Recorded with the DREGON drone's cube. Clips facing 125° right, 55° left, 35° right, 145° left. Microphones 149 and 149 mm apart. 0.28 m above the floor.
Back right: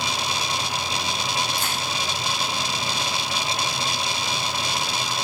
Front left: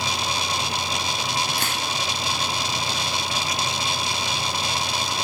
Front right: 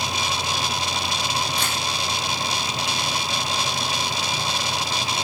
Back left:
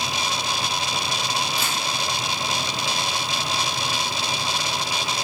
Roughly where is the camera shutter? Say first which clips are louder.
Even, even; ahead left.